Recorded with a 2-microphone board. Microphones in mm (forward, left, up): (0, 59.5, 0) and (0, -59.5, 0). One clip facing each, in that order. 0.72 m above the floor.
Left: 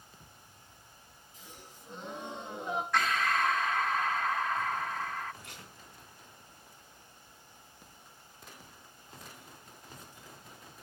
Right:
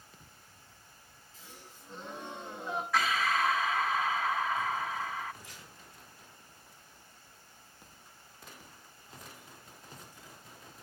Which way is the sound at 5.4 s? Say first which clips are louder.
Left 2 dB; 75° left (ahead or behind).